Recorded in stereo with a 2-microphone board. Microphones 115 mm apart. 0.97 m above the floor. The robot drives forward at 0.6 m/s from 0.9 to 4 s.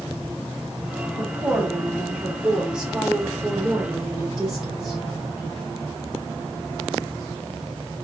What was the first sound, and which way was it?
A woman speaking, 15° right (ahead or behind).